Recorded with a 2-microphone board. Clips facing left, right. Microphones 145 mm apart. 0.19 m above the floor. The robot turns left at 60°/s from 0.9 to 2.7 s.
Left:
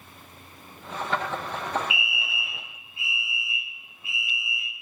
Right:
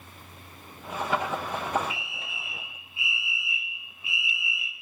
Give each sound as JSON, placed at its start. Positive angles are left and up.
{"t": 1.9, "sound": "a fire alarm", "side_deg": 15, "distance_m": 2.5}